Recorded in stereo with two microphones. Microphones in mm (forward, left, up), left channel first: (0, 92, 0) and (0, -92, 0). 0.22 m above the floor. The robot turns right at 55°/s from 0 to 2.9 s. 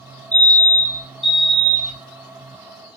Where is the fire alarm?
15° left, 3 m; by 2.0 s 110° left, 3 m.